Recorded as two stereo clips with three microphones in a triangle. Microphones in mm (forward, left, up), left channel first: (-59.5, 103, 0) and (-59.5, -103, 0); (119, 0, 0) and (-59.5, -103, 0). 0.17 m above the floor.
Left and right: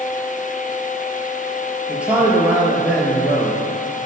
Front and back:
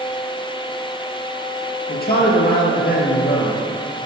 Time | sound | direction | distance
1.9 | a man speaking | 5° right | 3 m